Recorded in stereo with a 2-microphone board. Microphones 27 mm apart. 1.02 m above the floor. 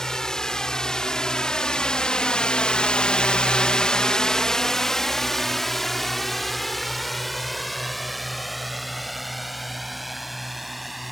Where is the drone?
20° left (ahead or behind); by 11.1 s 5° right (ahead or behind).